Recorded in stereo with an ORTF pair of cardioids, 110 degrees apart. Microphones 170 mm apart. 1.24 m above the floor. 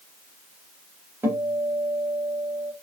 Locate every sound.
1.2 s a guitar: 10° right, 1.2 m